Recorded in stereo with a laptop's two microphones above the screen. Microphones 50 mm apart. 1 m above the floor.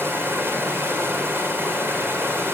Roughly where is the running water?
Right.